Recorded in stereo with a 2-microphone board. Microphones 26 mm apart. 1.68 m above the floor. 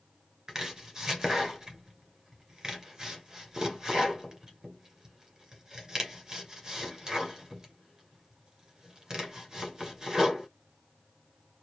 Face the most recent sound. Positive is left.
turn(degrees=-25)  # may be behind; listen again after turning